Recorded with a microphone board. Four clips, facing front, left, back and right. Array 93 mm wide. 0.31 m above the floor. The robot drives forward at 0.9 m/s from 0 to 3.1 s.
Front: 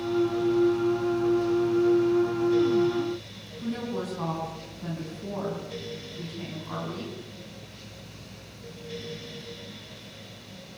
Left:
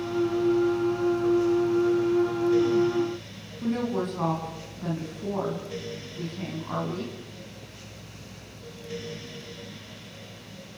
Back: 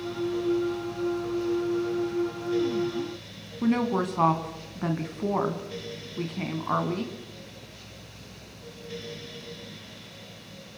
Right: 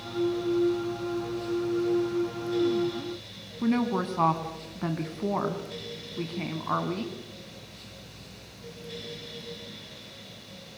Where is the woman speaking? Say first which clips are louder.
Right 1 dB, back 7 dB; 145° right, 3 m.